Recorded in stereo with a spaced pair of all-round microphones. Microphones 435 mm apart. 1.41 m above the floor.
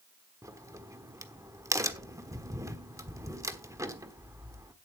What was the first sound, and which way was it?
A crack, 5° right (ahead or behind).